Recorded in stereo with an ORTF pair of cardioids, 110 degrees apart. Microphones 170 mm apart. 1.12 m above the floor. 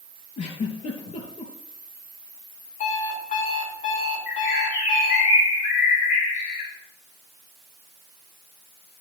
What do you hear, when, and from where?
0.4 s a giggle: 45° left, 3.5 m
2.8 s an alarm clock: 55° left, 5 m
4.3 s a bird: 65° left, 6.5 m